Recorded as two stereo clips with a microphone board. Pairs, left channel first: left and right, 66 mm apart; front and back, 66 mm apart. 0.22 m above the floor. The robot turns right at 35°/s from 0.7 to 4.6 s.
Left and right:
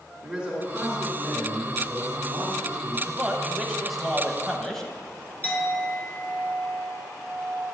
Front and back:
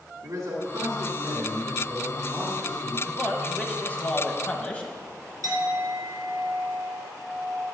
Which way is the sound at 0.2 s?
165° right.